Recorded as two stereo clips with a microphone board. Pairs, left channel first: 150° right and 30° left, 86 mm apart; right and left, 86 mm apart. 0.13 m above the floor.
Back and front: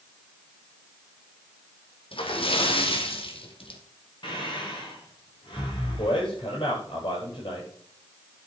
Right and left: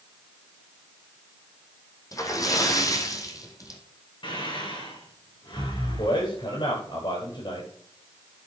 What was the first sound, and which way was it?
A splash, 140° right.